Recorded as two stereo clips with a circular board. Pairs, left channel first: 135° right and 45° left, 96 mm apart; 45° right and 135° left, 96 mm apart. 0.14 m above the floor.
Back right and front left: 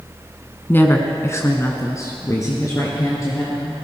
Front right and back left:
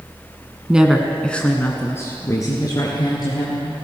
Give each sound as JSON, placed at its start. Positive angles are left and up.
{"t": 0.7, "sound": "a woman speaking", "azimuth_deg": -165, "distance_m": 1.2}